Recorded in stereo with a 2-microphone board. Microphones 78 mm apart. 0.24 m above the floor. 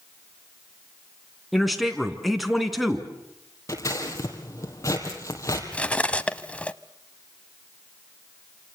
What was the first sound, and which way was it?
A man speaking, centre (ahead or behind).